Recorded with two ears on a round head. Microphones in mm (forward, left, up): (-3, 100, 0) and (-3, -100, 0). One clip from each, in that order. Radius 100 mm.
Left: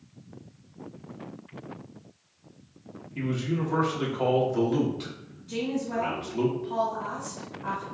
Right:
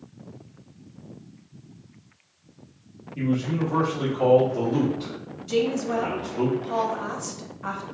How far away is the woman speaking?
About 0.8 m.